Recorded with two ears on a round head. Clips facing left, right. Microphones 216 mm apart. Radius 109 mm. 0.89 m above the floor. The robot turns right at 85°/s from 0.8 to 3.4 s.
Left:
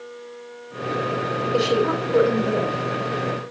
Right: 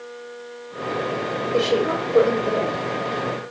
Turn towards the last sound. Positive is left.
turn(degrees=-170)